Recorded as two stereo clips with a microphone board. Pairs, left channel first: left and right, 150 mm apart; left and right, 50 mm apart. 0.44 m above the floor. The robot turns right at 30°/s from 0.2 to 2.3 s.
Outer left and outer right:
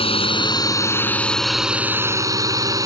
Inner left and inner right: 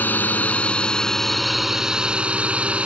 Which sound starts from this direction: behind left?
A drone, at 0.0 s.